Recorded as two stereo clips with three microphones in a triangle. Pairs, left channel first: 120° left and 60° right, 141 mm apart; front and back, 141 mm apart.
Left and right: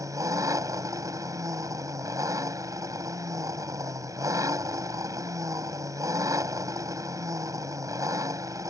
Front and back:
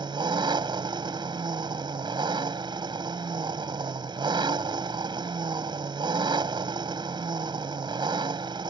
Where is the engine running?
125° right.